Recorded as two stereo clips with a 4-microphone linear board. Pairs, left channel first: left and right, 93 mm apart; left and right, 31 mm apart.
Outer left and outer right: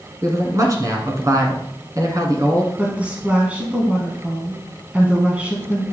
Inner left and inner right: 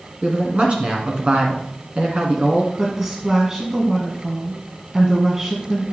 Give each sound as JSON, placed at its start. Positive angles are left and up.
{"t": 0.2, "sound": "a man speaking", "side_deg": -40, "distance_m": 1.9}
{"t": 2.8, "sound": "a woman speaking", "side_deg": -15, "distance_m": 1.5}